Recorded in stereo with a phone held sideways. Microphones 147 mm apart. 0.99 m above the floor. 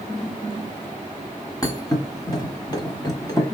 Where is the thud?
30° left (ahead or behind), 1.2 m.